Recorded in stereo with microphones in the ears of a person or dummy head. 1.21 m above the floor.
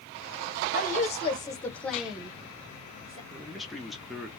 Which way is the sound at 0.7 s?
45° left (ahead or behind).